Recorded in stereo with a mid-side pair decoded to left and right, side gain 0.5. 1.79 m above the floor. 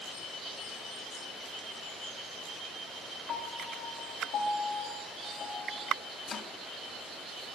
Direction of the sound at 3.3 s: 65° left.